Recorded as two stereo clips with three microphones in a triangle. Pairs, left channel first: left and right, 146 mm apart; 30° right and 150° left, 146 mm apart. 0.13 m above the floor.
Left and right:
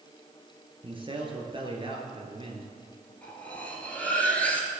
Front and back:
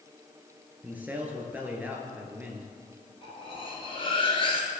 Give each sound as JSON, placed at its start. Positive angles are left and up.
{"t": 0.8, "sound": "a man speaking", "azimuth_deg": -135, "distance_m": 1.8}
{"t": 3.2, "sound": "cutlery clinking", "azimuth_deg": 10, "distance_m": 1.5}